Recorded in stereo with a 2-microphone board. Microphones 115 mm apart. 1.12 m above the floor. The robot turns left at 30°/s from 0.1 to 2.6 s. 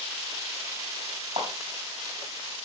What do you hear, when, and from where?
1.4 s a clap: 90° right, 5 m; by 1.5 s 85° right, 5 m